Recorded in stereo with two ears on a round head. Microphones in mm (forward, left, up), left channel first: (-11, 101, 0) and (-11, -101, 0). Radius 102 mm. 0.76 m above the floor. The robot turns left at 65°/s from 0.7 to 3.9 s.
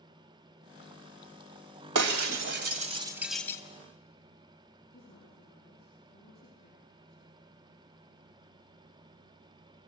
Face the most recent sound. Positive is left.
turn(degrees=25)  # may be behind; listen again after turning